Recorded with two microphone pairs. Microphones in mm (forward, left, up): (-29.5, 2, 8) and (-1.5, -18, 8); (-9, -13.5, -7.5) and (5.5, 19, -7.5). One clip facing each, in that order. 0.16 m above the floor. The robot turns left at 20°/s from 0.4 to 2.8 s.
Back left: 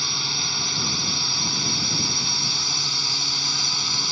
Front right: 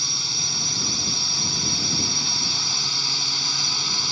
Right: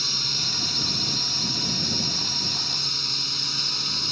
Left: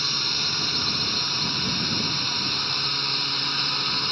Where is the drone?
105° left; by 4.1 s 55° left.